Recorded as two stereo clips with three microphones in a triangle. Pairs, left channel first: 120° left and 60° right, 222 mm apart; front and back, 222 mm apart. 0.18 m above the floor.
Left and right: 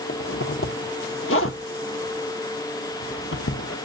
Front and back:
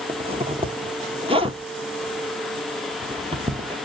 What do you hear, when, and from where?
0.1 s a zipper: 115° left, 0.8 m